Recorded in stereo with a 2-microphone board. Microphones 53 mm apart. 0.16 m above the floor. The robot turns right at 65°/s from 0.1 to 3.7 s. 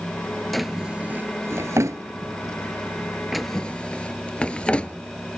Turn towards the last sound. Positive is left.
turn(degrees=20)  # may be behind; listen again after turning